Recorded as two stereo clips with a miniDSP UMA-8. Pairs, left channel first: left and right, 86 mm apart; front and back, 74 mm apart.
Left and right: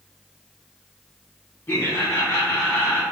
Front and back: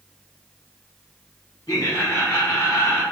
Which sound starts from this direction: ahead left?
Laughter, at 1.7 s.